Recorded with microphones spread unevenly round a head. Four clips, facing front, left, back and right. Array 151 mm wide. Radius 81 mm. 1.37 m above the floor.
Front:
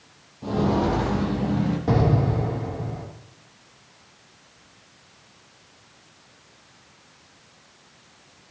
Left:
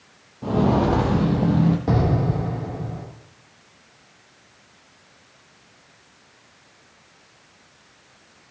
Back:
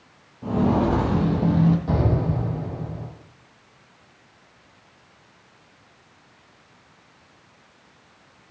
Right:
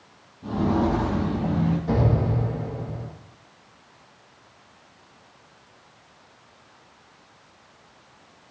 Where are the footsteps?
80° left, 1.6 m; by 1.8 s 115° left, 2 m.